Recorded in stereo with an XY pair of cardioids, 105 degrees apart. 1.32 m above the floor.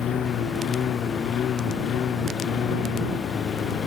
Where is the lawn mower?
60° left.